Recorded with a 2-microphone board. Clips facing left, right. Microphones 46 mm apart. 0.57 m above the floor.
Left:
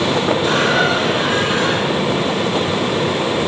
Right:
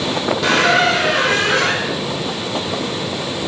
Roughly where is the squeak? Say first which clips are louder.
Right 5 dB; right.